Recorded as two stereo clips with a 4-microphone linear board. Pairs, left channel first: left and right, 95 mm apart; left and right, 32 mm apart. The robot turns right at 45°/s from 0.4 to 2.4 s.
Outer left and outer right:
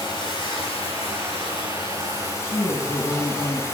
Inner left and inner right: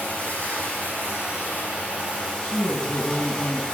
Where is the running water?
55° left, 5 m; by 3.8 s 145° left, 5 m.